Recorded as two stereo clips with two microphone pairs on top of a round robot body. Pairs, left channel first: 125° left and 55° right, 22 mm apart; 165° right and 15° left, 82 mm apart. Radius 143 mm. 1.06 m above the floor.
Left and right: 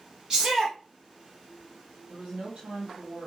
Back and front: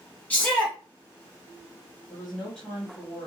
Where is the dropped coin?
I don't hear a dropped coin.